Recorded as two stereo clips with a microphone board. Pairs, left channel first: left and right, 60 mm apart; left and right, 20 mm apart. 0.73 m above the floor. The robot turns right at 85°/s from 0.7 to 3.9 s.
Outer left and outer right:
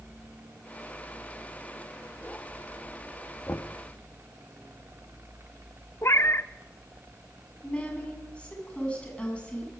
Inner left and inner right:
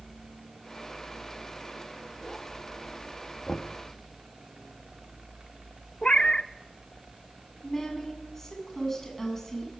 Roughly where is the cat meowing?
Left.